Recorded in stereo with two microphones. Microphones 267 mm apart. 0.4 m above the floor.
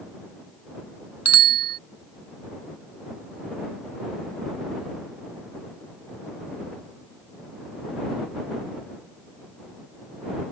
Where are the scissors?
I don't hear scissors.